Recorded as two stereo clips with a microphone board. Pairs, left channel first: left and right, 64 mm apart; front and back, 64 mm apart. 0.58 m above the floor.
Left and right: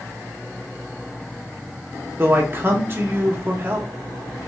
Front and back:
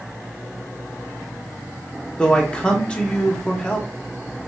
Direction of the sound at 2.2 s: 65° right.